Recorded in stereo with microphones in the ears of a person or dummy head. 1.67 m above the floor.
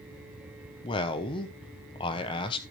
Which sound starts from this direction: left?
A man speaking, at 0.8 s.